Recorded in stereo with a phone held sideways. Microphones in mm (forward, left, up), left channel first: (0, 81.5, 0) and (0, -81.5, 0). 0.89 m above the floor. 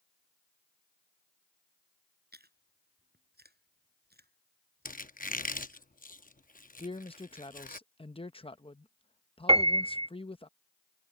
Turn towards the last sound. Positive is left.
turn(degrees=-35)  # may be behind; listen again after turning